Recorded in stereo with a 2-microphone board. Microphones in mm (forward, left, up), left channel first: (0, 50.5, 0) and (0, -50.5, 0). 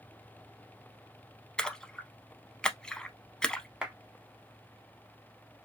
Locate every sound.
1.6 s a splash: 10° left (ahead or behind), 0.5 m
3.8 s a clap: 10° right (ahead or behind), 0.8 m